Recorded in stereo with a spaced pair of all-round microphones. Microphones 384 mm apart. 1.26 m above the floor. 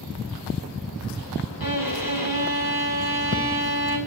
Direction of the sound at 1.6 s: 55° left (ahead or behind).